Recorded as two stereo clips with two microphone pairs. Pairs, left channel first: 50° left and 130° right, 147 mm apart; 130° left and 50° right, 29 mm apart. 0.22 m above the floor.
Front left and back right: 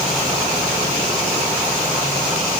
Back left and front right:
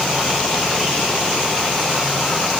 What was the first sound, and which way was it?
Only background noise.